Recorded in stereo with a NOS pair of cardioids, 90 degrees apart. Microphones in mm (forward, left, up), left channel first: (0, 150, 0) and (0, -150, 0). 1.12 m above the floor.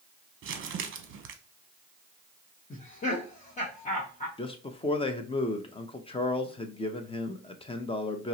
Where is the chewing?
I don't hear chewing.